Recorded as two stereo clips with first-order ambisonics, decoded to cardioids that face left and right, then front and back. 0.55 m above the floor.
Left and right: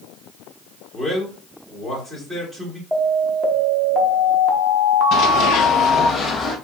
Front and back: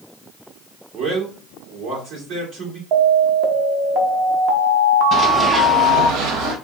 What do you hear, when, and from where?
0.9 s a man speaking: 150° right, 1.7 m
2.9 s an alarm: 160° right, 0.7 m
5.1 s running footsteps: 60° left, 0.8 m; by 6.5 s 170° left, 1.2 m